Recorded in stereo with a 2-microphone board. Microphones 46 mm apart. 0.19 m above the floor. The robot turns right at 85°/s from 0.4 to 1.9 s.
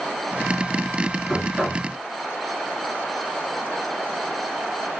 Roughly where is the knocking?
Behind.